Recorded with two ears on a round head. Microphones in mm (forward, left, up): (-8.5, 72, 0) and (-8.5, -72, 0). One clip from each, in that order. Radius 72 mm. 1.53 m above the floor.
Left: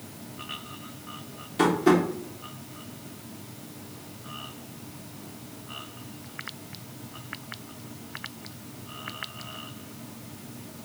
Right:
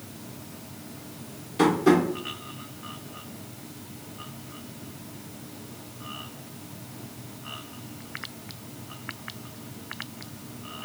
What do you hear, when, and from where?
1.6 s tapping: 10° left (ahead or behind), 0.7 m